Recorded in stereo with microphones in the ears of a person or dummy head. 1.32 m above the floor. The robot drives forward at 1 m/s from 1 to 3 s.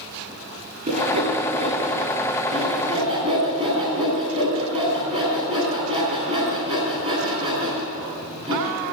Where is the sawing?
35° right (ahead or behind), 10 m; by 8.6 s 30° right (ahead or behind), 11.5 m.